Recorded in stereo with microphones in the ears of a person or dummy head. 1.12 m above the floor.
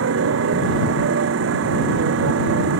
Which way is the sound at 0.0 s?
80° right.